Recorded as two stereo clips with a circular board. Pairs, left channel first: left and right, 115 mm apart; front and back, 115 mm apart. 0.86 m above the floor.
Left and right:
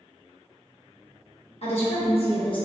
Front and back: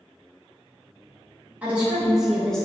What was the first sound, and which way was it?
A woman speaking, 105° left.